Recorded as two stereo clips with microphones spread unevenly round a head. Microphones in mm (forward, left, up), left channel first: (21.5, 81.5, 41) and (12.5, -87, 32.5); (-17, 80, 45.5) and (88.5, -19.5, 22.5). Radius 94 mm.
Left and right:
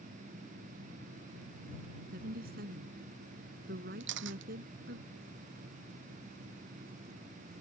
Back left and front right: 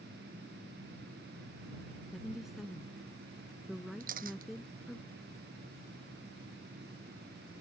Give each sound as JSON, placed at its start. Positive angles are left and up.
{"t": 2.1, "sound": "a woman speaking", "azimuth_deg": -130}
{"t": 4.0, "sound": "a camera shutter", "azimuth_deg": -85}